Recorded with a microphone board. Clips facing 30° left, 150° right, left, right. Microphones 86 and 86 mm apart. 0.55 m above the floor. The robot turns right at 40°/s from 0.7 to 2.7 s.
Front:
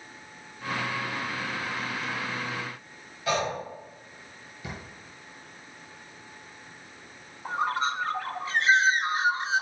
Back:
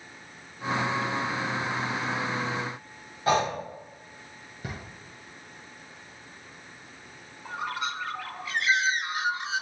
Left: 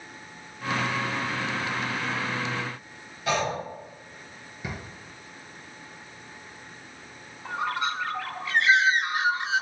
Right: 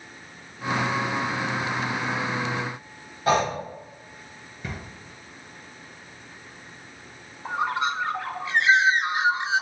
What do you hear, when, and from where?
3.3 s breathing: 115° right, 1.3 m
4.6 s a drawer: 170° left, 3 m
7.5 s a bird: 25° right, 0.6 m